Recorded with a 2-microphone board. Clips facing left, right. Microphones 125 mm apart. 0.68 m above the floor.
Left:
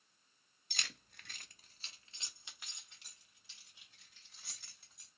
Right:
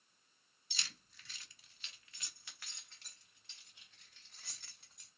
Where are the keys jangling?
55° left (ahead or behind), 0.7 m; by 5.1 s 5° left (ahead or behind), 3 m.